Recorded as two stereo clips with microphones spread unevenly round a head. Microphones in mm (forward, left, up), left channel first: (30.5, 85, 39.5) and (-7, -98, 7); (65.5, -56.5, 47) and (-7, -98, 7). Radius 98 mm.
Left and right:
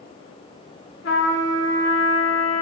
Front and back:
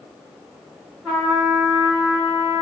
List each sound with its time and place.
1.0 s a trumpet: 110° left, 2 m